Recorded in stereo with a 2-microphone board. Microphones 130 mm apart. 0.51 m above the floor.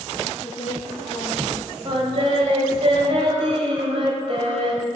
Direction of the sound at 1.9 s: 50° right (ahead or behind).